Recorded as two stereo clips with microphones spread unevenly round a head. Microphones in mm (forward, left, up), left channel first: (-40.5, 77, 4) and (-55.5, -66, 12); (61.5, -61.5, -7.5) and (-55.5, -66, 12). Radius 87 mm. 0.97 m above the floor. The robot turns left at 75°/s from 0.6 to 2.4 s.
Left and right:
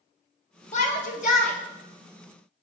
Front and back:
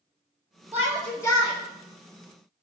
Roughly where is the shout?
Left.